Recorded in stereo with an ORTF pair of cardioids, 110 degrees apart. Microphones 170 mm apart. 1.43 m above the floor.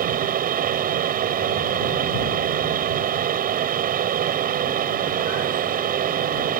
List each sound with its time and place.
0.0 s a fan: 60° right